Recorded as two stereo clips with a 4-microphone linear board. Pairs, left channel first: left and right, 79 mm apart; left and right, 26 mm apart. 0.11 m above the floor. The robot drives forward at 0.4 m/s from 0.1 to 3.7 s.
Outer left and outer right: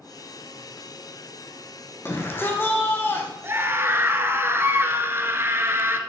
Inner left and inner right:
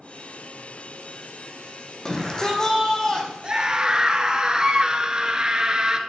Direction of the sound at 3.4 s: 30° right (ahead or behind).